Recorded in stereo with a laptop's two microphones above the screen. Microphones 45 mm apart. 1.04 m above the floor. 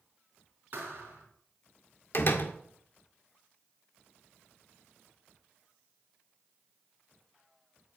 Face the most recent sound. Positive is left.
turn(degrees=50)  # may be behind; listen again after turning